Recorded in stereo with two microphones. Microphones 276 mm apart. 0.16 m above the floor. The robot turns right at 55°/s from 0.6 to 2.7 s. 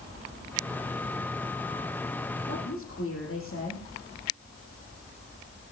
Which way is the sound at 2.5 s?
40° left (ahead or behind).